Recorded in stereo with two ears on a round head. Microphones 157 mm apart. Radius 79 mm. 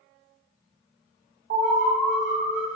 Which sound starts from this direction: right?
An alarm, at 1.5 s.